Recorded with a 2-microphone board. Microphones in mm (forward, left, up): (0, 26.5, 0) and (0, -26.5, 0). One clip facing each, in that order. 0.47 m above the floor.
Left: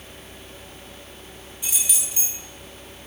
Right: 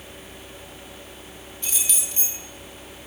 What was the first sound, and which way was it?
Keys jangling, 10° left (ahead or behind).